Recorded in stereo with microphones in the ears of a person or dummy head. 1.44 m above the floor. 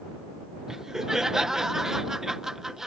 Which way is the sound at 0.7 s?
Centre (ahead or behind).